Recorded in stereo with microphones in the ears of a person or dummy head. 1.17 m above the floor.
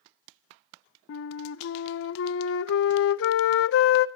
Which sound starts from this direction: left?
A flute, at 1.1 s.